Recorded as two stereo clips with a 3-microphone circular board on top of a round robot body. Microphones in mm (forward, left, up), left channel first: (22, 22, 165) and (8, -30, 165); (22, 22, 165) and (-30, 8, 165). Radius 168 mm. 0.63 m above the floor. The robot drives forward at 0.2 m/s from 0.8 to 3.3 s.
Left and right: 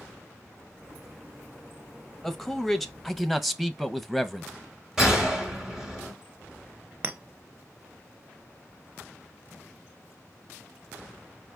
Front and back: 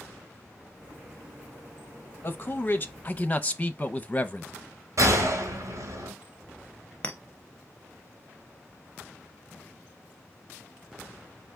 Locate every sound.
2.2 s a man speaking: 10° right, 0.8 m; by 4.5 s 20° right, 0.7 m
5.0 s a gunshot: 175° left, 1.8 m
7.0 s a clink: 45° right, 0.6 m